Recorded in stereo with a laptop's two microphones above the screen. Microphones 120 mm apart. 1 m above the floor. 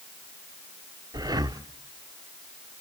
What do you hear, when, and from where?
1.1 s breathing: 30° right (ahead or behind), 0.7 m